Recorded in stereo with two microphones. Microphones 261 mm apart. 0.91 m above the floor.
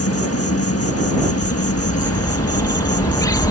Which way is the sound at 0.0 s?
60° left (ahead or behind).